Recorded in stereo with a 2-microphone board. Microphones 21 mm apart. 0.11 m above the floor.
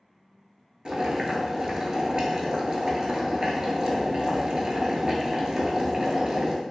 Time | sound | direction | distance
0.8 | boiling | 40° right (ahead or behind) | 0.6 m